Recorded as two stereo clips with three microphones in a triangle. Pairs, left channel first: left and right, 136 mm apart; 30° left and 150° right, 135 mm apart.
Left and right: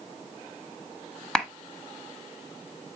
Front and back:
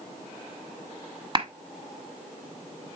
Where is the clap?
175° left, 1.0 m.